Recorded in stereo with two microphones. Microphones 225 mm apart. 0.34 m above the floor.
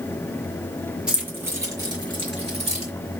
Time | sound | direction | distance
1.1 | keys jangling | 5° right (ahead or behind) | 2 m